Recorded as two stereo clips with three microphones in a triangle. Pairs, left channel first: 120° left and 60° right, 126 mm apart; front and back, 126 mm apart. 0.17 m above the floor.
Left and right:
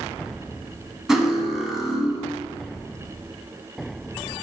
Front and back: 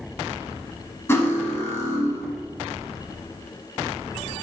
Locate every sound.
1.1 s cutlery clinking: 20° left, 0.6 m